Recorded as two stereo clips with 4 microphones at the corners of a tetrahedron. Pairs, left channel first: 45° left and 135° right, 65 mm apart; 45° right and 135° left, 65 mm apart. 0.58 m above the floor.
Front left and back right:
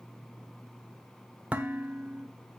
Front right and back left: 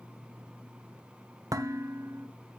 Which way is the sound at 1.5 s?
160° left.